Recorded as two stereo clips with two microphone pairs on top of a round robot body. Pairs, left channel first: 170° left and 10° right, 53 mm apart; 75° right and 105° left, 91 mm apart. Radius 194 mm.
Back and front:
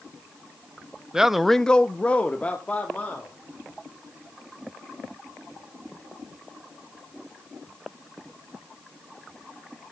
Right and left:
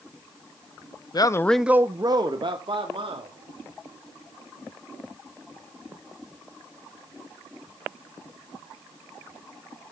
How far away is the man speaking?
About 0.9 m.